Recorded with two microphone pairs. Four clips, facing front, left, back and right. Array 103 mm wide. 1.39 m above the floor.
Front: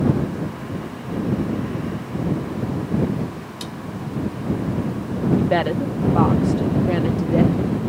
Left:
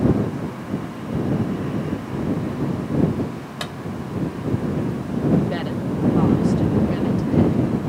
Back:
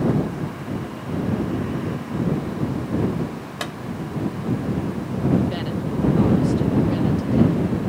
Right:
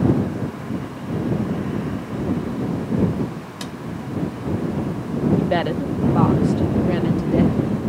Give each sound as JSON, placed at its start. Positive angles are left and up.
{"t": 3.6, "sound": "a clap", "azimuth_deg": 150}
{"t": 5.4, "sound": "a woman speaking", "azimuth_deg": -30}